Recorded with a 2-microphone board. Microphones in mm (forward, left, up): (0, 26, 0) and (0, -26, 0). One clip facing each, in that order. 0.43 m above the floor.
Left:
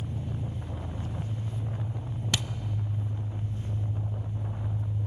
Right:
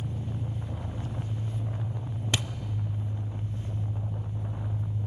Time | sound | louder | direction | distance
0.0 | an engine running | even | 10° left (ahead or behind) | 7.5 m
2.3 | a thud | right 1 dB | 25° right (ahead or behind) | 0.5 m